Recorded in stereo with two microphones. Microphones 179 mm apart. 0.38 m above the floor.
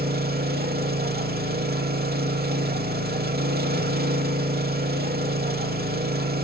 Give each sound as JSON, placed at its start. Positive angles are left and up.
{"t": 0.0, "sound": "an engine running", "side_deg": -60, "distance_m": 0.7}